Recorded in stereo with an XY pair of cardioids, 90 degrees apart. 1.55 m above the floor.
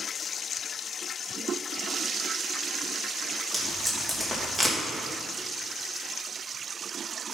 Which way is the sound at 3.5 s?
15° right.